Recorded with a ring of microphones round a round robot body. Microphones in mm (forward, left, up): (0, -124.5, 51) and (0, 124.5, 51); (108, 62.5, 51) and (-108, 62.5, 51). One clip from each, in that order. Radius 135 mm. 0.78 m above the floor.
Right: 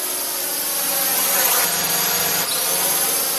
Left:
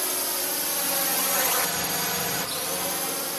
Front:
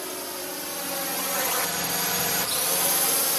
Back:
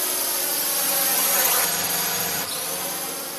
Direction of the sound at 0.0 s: 165° right.